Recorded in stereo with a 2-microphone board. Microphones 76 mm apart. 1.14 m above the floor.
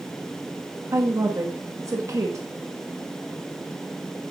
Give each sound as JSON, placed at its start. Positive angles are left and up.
{"t": 0.9, "sound": "a woman speaking", "side_deg": -45, "distance_m": 1.2}